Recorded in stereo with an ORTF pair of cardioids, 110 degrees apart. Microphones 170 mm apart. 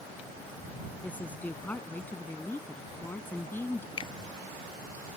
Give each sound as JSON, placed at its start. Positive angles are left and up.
{"t": 1.0, "sound": "a woman speaking", "azimuth_deg": 10}
{"t": 4.0, "sound": "a finger snap", "azimuth_deg": 30}